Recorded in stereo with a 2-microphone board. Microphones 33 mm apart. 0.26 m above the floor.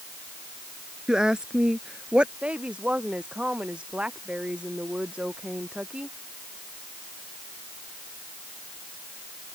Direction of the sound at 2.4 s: 35° right (ahead or behind).